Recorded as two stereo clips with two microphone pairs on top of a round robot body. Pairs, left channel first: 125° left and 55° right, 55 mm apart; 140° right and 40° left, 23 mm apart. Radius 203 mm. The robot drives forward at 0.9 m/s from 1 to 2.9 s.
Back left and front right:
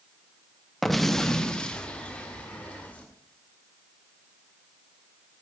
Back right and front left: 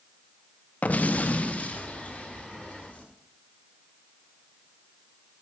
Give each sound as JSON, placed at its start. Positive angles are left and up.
{"t": 0.8, "sound": "an explosion", "azimuth_deg": -150, "distance_m": 0.9}